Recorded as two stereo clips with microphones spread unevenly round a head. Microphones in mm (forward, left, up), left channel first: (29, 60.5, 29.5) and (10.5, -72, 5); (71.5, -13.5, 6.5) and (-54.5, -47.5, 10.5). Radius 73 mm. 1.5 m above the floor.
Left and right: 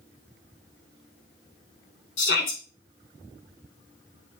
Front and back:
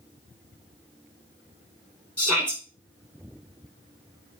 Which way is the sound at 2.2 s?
100° left.